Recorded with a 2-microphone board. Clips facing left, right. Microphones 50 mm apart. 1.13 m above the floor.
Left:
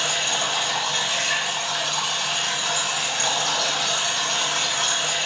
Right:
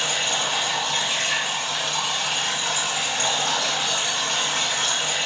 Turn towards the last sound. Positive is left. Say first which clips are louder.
# even
turn(degrees=-20)  # may be behind; listen again after turning